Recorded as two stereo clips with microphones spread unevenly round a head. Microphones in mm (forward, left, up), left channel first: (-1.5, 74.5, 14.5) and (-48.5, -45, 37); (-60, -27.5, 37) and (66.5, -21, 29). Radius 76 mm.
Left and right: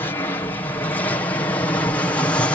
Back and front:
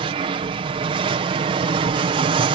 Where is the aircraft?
15° left; by 2.6 s 5° left.